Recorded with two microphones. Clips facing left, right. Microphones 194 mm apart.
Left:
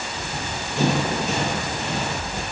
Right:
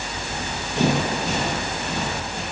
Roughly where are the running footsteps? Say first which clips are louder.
Right 1 dB; right.